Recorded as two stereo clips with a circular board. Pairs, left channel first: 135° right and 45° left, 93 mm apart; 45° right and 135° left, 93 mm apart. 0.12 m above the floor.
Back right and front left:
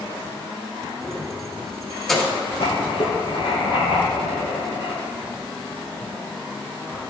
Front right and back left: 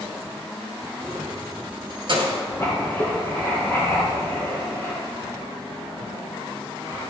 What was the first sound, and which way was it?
Keys jangling, 135° left.